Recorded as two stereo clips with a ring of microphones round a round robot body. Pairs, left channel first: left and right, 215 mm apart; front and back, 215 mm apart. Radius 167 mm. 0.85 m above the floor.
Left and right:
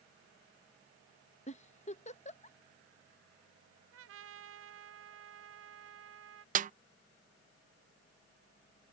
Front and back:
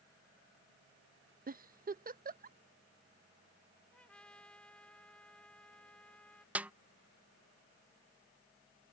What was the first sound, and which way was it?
A giggle, 140° left.